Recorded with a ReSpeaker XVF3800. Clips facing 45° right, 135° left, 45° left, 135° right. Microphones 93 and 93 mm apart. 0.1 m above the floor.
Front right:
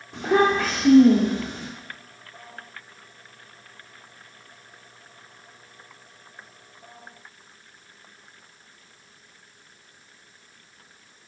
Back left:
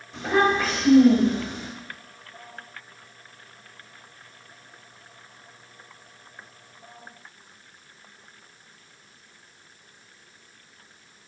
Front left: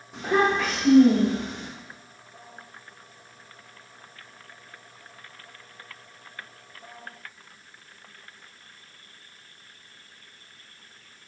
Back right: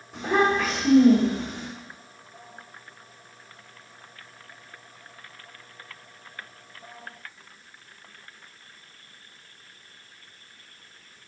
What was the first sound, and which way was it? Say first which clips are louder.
A child speaking: front right 2 dB, even; 45° right.